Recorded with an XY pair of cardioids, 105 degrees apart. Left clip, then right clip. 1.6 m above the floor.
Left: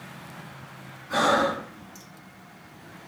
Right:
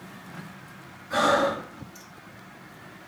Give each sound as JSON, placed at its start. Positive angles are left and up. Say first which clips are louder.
{"t": 1.1, "sound": "breathing", "louder": "even", "azimuth_deg": 25, "distance_m": 2.5}